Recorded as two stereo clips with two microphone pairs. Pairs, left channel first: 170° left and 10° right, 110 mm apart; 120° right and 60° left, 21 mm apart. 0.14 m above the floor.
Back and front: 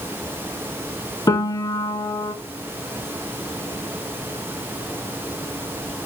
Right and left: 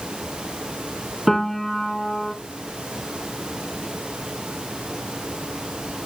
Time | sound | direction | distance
1.3 | a piano | 145° left | 0.5 m